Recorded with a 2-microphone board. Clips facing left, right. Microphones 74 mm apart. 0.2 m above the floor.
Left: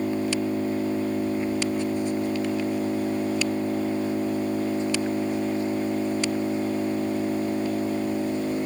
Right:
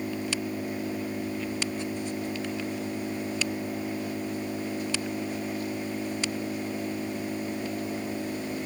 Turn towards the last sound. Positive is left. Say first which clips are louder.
# left 7 dB
turn(degrees=30)  # may be behind; listen again after turning